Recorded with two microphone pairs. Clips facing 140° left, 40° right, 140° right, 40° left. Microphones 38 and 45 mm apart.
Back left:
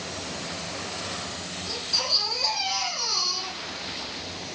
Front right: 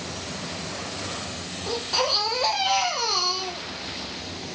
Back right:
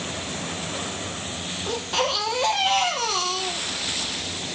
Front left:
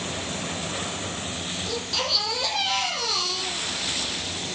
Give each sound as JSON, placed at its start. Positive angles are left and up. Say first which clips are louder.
{"t": 1.7, "sound": "a baby crying", "louder": "front right 5 dB, back right 5 dB", "azimuth_deg": -85, "distance_m": 4.0}